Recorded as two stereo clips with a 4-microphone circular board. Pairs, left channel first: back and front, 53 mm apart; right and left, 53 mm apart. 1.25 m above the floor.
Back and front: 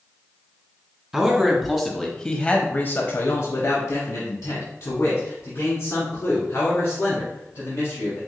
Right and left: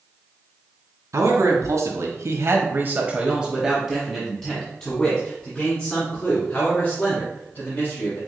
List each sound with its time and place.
1.1 s a man speaking: 75° left, 1.3 m; by 8.2 s 145° right, 3 m